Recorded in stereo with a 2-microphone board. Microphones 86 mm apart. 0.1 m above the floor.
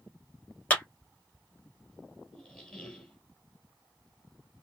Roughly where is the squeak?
Centre.